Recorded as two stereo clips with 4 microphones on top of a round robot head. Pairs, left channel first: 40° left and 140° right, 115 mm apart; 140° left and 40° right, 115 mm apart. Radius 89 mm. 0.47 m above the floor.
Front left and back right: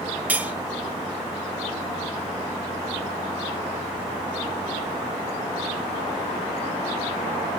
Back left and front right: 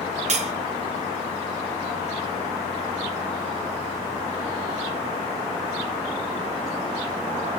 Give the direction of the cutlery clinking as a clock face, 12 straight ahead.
2 o'clock.